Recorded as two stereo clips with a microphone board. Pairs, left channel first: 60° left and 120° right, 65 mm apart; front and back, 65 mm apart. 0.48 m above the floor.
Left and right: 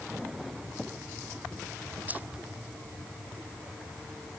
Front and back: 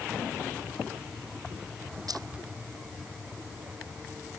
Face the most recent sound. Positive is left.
turn(degrees=175)